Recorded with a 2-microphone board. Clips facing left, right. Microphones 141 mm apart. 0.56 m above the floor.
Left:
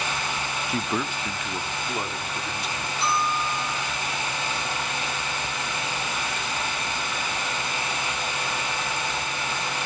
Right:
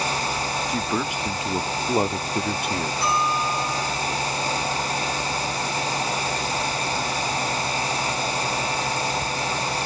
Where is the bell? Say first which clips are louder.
Even; 25° left (ahead or behind), 6.5 m.